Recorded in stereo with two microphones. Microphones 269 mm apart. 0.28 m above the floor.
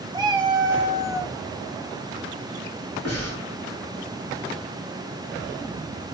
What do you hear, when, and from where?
0.1 s a cat meowing: 15° right (ahead or behind), 0.7 m; by 1.4 s 10° right (ahead or behind), 0.8 m
3.0 s breathing: 70° left (ahead or behind), 2.5 m